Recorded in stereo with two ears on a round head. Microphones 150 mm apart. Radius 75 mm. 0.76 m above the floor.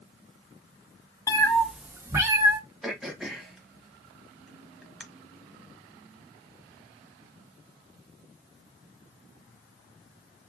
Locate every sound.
1.3 s a cat meowing: 20° left (ahead or behind), 0.5 m; by 2.6 s 25° right (ahead or behind), 1.2 m
2.8 s throat clearing: centre (ahead or behind), 1.0 m